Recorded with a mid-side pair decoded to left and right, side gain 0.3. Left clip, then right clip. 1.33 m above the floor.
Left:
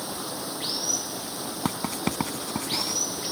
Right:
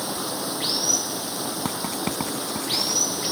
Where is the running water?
55° right.